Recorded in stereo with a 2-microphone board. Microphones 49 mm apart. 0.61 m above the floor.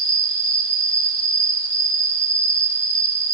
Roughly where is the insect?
Centre.